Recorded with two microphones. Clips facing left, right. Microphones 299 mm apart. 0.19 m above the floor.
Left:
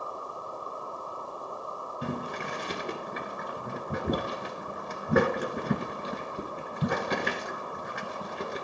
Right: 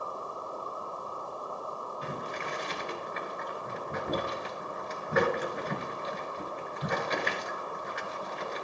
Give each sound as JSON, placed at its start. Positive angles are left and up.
{"t": 2.0, "sound": "boiling", "side_deg": 60, "distance_m": 1.2}